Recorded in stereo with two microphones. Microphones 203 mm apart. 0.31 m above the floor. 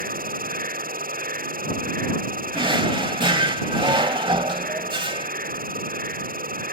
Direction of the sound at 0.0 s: 45° right (ahead or behind).